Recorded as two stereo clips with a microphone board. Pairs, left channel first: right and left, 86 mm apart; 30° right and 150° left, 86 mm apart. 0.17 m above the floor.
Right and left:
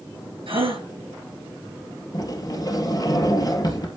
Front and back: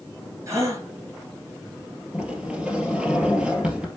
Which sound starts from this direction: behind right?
A sliding door, at 2.1 s.